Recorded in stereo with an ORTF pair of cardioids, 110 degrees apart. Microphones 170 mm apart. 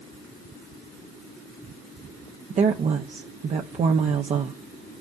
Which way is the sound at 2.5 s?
45° right.